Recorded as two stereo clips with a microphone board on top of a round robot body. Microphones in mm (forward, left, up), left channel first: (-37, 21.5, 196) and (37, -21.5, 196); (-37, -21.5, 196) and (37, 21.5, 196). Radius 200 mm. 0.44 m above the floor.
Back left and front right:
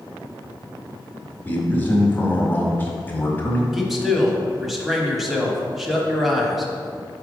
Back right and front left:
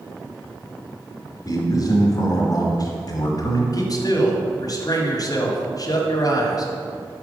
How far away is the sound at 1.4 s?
About 1.5 m.